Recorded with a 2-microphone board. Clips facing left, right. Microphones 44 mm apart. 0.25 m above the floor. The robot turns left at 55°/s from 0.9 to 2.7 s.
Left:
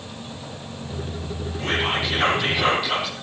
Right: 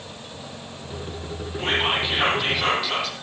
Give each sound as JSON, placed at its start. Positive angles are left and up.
{"t": 1.6, "sound": "whispering", "azimuth_deg": -125, "distance_m": 9.0}